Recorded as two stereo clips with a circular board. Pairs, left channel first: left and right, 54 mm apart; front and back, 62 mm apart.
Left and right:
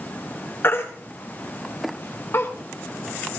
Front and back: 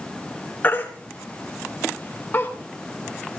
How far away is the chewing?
I don't hear chewing.